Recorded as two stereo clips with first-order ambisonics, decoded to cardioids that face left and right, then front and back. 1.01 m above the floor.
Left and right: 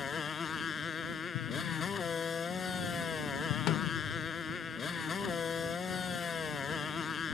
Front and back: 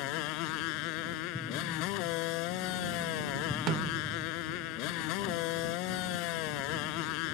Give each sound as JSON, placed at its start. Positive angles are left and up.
{"t": 0.0, "sound": "a motorcycle", "azimuth_deg": 20}
{"t": 1.3, "sound": "an explosion", "azimuth_deg": 80}
{"t": 3.7, "sound": "a snare drum", "azimuth_deg": 130}